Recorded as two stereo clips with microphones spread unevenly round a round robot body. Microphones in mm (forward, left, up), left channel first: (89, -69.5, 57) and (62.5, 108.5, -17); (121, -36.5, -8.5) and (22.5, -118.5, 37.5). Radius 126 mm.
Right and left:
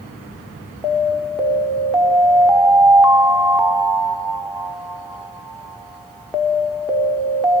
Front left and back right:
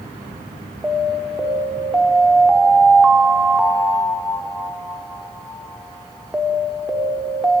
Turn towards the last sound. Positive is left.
turn(degrees=95)